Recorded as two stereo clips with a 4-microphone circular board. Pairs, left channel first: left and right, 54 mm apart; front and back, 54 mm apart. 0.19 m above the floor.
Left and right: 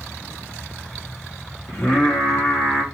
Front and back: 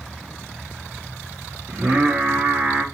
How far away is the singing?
About 1.2 m.